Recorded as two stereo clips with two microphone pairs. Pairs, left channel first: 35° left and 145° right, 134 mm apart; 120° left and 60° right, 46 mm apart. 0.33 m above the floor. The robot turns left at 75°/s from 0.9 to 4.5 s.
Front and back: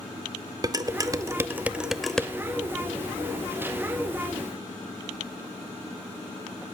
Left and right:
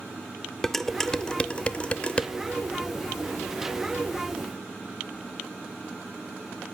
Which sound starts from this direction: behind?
Dishes clattering, at 0.6 s.